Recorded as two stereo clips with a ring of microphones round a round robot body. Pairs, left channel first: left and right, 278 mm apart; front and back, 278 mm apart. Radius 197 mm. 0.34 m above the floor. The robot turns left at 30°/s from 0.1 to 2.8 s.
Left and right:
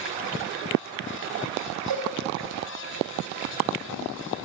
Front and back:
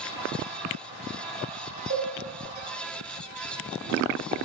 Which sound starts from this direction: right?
A cowbell, at 1.9 s.